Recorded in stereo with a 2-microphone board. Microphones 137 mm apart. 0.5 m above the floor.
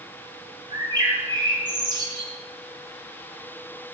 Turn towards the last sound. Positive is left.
turn(degrees=-35)  # may be behind; listen again after turning